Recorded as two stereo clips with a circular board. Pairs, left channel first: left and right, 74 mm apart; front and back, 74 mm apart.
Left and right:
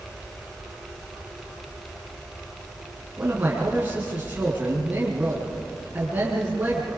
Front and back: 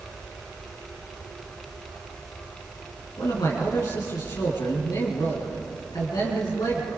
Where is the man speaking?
25° right, 4.5 m.